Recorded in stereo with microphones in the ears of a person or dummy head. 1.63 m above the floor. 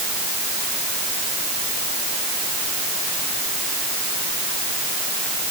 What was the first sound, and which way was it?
Only background noise.